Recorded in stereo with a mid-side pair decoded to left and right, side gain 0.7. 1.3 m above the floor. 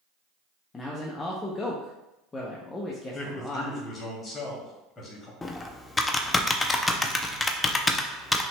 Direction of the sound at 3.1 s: 25° left.